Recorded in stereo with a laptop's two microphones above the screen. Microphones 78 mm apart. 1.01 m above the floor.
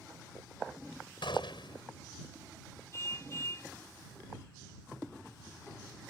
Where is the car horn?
35° left (ahead or behind).